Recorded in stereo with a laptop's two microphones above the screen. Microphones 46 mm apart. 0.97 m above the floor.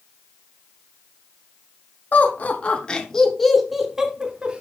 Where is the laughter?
40° left (ahead or behind), 2.5 m; by 4.6 s 25° right (ahead or behind), 2.5 m.